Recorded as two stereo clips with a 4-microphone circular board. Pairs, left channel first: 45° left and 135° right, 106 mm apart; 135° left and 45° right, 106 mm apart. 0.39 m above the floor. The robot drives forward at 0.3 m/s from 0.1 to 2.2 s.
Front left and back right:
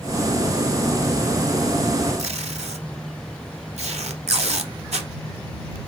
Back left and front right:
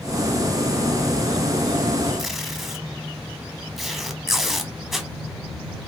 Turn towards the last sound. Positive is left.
turn(degrees=-135)